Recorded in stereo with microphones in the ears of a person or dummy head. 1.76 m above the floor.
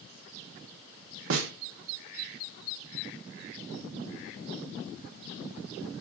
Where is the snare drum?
65° right (ahead or behind), 0.9 m.